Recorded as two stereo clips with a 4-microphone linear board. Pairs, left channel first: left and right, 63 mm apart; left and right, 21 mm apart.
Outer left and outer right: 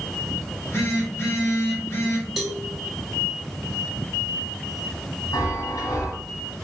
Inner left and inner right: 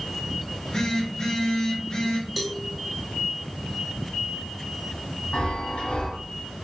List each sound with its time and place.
0.5 s a phone buzzing: 45° left (ahead or behind), 3 m
2.4 s a cowbell: centre (ahead or behind), 1.2 m
5.3 s a chime: 80° left, 2 m